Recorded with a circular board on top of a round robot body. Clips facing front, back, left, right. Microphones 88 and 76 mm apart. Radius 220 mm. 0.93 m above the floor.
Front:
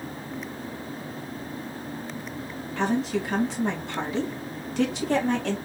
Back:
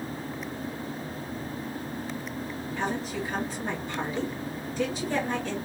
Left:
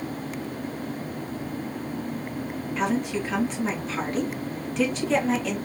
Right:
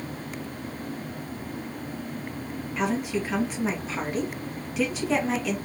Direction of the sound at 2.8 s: 5° right.